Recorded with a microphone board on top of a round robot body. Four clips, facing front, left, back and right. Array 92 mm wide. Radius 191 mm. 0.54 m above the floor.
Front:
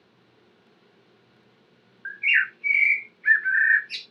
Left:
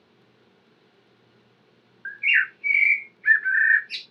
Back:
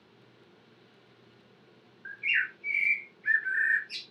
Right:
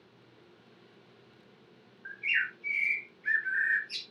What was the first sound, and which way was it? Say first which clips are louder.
A bird: left 9 dB, front 7 dB; 55° left.